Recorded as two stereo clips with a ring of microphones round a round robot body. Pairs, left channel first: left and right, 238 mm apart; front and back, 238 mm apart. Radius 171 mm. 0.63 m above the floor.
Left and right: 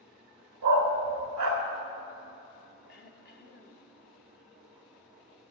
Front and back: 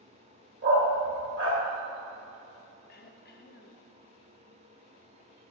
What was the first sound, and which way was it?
A dog barking, 120° right.